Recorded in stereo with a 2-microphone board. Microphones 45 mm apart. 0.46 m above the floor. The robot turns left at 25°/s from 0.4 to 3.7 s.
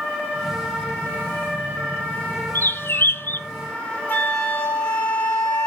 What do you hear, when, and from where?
2.5 s a bird: 55° left (ahead or behind), 0.5 m; by 3.4 s 50° left (ahead or behind), 0.5 m
4.1 s a flute: 45° left (ahead or behind), 2.5 m